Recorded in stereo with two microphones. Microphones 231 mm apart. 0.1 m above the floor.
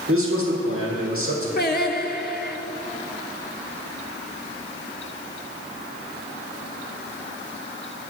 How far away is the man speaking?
About 3 m.